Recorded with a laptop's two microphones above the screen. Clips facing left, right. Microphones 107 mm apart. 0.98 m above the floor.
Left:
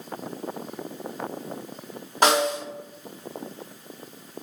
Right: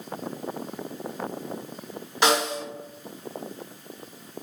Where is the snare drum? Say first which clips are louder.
Left 2 dB; 45° left (ahead or behind), 1.3 m.